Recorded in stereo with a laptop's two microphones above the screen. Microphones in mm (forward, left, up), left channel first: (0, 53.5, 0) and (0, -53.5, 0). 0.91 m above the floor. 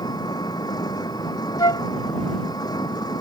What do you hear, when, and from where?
0.0 s an engine running: 40° left (ahead or behind)
1.6 s a flute: 35° left (ahead or behind)